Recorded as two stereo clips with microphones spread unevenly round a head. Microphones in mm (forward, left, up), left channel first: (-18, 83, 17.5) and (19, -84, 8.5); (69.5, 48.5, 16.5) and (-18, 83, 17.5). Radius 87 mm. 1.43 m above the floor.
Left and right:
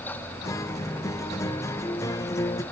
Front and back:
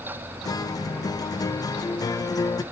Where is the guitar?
30° left, 0.7 m.